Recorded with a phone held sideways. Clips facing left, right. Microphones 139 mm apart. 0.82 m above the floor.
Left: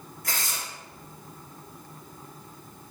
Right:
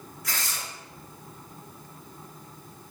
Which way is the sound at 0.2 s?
50° left (ahead or behind).